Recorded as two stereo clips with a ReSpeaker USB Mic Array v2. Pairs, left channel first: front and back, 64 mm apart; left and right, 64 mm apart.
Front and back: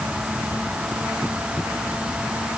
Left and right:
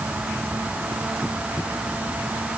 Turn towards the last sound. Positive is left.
No sound to turn to.